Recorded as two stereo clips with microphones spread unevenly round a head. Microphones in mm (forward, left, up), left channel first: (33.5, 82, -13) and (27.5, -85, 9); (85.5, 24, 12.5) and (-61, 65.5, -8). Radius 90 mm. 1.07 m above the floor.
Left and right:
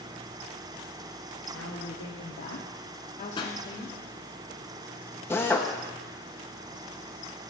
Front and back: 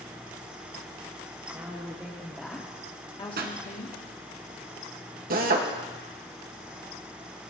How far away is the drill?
About 1.6 m.